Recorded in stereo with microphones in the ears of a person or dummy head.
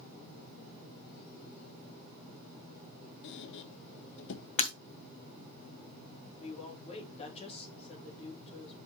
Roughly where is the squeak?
Left.